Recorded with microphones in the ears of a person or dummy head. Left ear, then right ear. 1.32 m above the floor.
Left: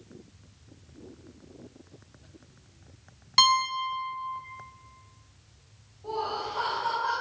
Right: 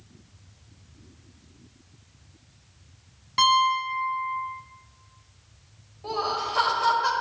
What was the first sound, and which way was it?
A piano, 30° left (ahead or behind).